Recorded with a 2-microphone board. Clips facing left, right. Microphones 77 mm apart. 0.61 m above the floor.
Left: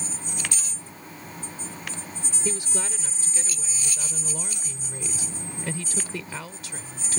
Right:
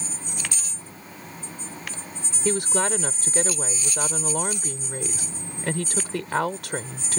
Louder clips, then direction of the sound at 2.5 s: Right 9 dB; 65° right (ahead or behind).